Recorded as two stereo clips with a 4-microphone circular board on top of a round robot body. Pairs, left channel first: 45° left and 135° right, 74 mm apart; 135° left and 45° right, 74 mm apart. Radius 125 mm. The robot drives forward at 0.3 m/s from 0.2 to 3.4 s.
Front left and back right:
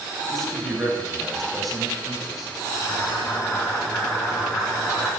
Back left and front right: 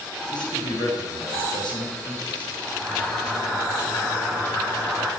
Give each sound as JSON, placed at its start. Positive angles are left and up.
{"t": 0.3, "sound": "a man speaking", "azimuth_deg": 130, "distance_m": 4.5}
{"t": 2.7, "sound": "boiling", "azimuth_deg": 100, "distance_m": 7.5}